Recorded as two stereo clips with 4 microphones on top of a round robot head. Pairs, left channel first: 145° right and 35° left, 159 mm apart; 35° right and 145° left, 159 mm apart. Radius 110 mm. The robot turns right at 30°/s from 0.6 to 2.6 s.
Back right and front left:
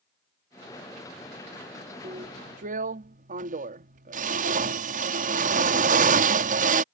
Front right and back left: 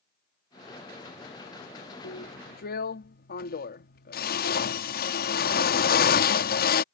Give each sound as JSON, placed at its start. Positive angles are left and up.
{"t": 2.0, "sound": "a drill", "azimuth_deg": -25}